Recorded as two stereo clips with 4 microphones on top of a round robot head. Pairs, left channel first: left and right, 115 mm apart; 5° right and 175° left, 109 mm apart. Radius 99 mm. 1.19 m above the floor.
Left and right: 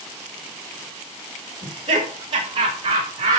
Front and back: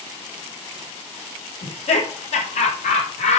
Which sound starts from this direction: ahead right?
Laughter, at 1.6 s.